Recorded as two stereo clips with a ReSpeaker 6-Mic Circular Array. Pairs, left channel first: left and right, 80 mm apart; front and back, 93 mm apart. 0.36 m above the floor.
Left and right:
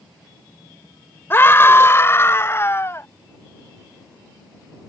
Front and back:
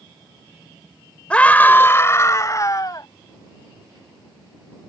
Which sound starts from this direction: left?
A scream, at 1.3 s.